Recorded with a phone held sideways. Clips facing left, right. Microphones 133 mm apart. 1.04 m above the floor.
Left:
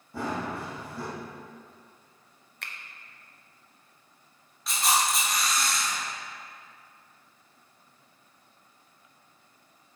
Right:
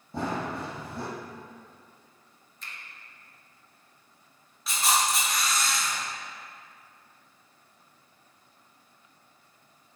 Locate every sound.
0.1 s running footsteps: 25° right (ahead or behind), 1.6 m
2.6 s a finger snap: 70° left (ahead or behind), 0.5 m
4.7 s a camera shutter: centre (ahead or behind), 1.3 m